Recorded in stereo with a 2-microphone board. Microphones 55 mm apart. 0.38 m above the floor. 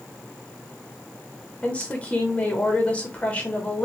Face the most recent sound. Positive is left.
turn(degrees=25)  # may be behind; listen again after turning